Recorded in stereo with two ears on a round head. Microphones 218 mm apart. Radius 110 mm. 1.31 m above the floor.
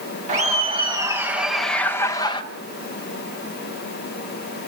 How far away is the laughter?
About 1.6 m.